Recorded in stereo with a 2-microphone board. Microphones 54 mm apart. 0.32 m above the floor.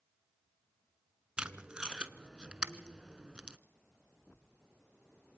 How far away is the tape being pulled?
About 0.7 m.